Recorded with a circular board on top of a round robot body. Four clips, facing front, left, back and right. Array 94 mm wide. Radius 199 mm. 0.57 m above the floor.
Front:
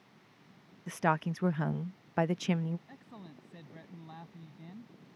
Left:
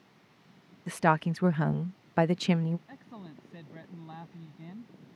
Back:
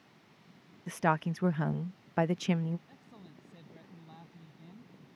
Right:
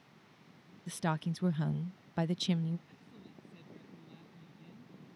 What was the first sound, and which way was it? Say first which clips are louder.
A woman speaking: left 10 dB, back 1 dB; 90° left.